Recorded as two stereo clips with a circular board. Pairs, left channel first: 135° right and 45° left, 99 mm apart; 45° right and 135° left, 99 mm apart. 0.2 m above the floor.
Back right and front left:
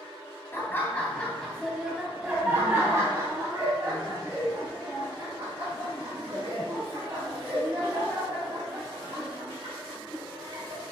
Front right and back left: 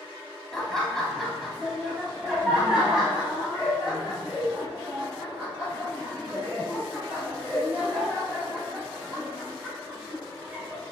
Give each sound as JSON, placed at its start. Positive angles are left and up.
{"t": 0.5, "sound": "laughter", "azimuth_deg": -120, "distance_m": 1.4}